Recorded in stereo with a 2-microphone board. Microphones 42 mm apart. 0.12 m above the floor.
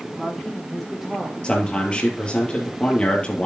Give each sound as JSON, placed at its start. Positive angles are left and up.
{"t": 0.1, "sound": "a woman speaking", "side_deg": 0, "distance_m": 3.5}
{"t": 1.4, "sound": "a man speaking", "side_deg": 25, "distance_m": 2.5}